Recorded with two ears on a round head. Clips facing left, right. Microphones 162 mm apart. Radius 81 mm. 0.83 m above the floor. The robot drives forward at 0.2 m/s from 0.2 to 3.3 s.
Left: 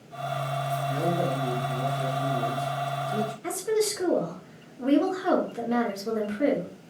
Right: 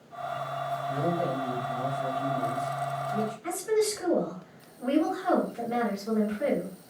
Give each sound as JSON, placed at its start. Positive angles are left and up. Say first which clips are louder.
{"t": 0.9, "sound": "a man speaking", "louder": "left 1 dB", "side_deg": 60, "distance_m": 1.8}
{"t": 3.4, "sound": "a woman speaking", "louder": "even", "side_deg": 60, "distance_m": 1.5}